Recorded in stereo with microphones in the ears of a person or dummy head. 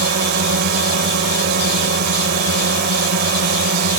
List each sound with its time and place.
0.0 s a drone: 55° right (ahead or behind)